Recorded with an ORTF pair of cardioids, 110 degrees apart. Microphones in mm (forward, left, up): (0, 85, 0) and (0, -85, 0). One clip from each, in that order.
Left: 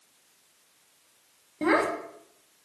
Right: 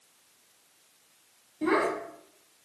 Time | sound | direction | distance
1.6 | a child speaking | 60° left | 0.8 m